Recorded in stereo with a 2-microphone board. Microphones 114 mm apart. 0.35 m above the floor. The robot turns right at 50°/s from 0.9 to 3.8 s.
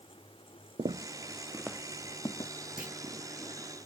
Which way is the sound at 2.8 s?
5° right (ahead or behind).